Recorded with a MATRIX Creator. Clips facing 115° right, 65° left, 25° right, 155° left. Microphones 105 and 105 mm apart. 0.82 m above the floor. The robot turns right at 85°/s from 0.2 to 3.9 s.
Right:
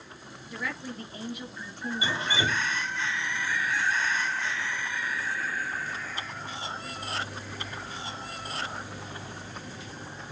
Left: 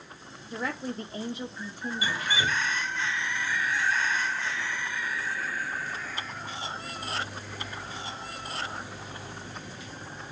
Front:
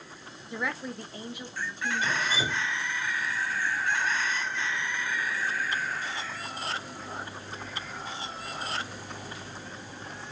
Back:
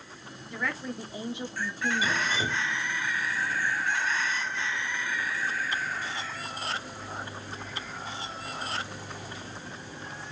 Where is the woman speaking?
35° left, 0.9 m; by 2.2 s straight behind, 0.9 m.